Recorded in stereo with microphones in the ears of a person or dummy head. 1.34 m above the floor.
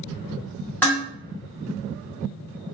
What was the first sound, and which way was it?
Dishes clattering, 10° left (ahead or behind).